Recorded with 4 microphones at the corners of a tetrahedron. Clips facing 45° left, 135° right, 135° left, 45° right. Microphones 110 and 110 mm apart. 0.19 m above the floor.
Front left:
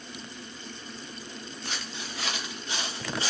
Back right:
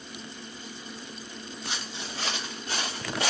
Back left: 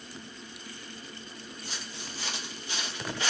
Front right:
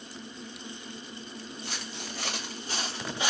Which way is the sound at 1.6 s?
75° right.